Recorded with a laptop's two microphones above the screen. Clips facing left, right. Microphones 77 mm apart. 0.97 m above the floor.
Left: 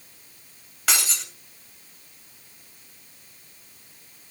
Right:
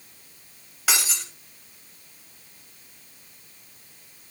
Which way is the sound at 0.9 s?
5° right (ahead or behind).